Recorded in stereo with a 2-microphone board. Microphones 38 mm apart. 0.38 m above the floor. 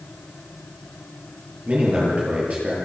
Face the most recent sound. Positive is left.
turn(degrees=-35)  # may be behind; listen again after turning